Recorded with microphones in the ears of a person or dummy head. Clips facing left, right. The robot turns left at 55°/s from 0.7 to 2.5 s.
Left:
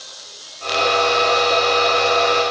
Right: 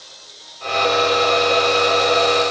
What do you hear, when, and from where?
Only background noise.